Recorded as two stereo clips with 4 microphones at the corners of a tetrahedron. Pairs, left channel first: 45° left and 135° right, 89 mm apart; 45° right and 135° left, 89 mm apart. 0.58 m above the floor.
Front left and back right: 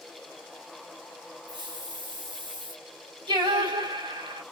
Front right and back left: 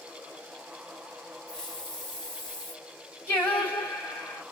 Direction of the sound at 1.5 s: 130° right.